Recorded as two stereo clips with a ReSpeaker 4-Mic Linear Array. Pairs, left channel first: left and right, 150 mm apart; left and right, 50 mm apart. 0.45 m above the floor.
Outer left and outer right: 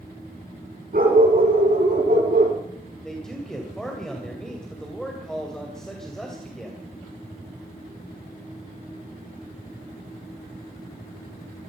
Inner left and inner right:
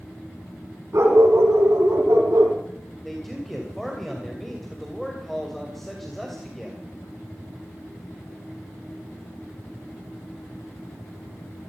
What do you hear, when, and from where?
0.9 s a dog barking: 70° right (ahead or behind), 6.5 m; by 2.5 s 80° right, 4.5 m
3.0 s a man speaking: 5° left (ahead or behind), 2.5 m